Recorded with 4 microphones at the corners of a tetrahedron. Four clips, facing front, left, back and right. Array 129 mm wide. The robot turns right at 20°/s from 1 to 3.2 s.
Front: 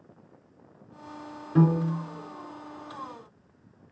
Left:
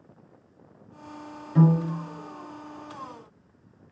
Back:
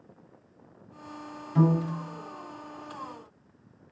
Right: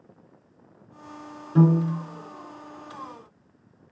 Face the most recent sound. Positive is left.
turn(degrees=-10)